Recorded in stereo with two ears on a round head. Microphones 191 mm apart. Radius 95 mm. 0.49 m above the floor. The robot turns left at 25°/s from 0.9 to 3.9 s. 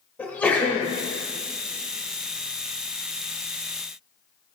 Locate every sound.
0.2 s a sneeze: 5° left (ahead or behind), 1.2 m